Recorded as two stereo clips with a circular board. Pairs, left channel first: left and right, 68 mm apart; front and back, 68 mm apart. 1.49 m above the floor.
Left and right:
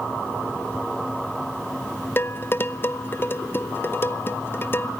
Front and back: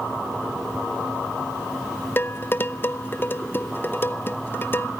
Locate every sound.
2.2 s dishes clattering: 45° left, 0.7 m